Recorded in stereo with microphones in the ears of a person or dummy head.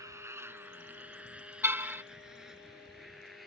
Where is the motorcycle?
15° right (ahead or behind); by 3.5 s centre (ahead or behind).